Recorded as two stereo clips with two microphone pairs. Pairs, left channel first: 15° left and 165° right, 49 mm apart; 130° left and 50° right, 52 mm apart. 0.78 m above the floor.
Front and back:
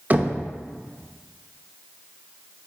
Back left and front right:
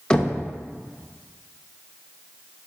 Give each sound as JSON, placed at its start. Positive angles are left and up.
{"t": 0.1, "sound": "knocking", "azimuth_deg": -165, "distance_m": 0.5}